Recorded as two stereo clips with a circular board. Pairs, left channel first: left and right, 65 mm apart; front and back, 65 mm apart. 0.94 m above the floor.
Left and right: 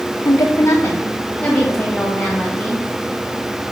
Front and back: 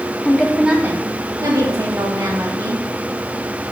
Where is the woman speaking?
65° left, 0.6 m; by 2.8 s 175° left, 1.8 m.